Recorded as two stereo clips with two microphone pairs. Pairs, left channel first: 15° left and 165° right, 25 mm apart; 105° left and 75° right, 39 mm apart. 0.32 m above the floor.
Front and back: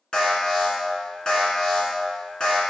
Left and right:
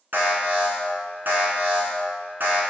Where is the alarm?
45° right, 2 m.